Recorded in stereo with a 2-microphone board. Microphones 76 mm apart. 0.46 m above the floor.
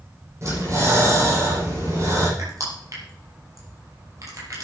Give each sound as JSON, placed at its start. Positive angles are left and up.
{"t": 0.4, "sound": "breathing", "side_deg": -40, "distance_m": 7.5}
{"t": 2.4, "sound": "crushing", "side_deg": -45, "distance_m": 6.0}